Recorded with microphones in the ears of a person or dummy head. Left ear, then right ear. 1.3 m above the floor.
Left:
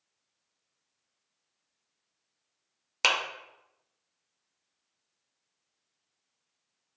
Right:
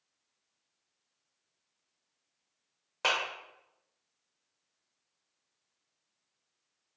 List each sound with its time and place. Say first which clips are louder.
3.0 s a clap: left 4 dB; 60° left (ahead or behind), 0.8 m